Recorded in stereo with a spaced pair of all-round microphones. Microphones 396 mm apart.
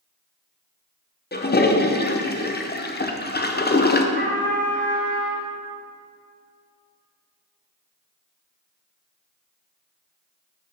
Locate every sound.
1.3 s a toilet flushing: 25° left (ahead or behind), 0.5 m
4.2 s a trumpet: 30° right (ahead or behind), 1.3 m